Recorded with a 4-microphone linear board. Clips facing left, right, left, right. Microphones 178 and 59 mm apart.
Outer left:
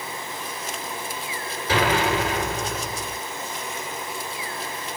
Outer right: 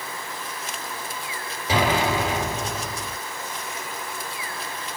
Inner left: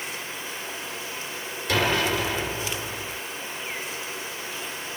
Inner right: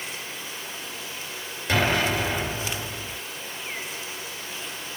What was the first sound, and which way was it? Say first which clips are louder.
An explosion: even, even; 15° right (ahead or behind).